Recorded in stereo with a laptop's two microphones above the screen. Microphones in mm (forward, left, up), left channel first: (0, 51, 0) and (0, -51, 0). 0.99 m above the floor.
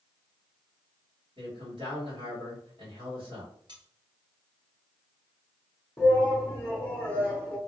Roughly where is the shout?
Centre.